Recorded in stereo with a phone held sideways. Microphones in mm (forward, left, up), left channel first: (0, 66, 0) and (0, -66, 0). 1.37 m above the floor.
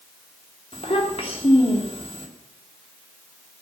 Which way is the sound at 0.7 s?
50° left (ahead or behind).